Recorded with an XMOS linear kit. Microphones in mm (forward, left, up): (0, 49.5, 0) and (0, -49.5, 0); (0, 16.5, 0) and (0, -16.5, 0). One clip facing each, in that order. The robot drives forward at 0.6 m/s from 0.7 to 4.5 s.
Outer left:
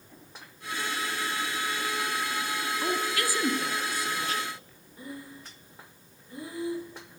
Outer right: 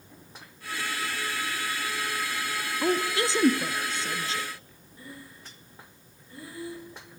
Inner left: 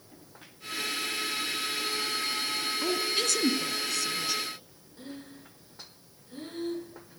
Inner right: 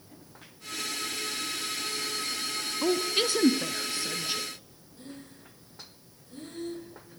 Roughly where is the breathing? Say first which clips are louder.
Outer left 4 dB, inner left 2 dB; left.